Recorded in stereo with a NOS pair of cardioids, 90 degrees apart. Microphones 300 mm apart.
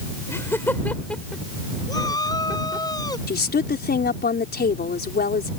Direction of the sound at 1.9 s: 15° left.